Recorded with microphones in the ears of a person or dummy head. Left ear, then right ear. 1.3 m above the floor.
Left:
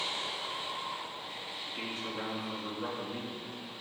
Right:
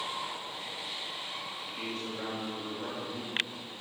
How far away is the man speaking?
About 2.5 m.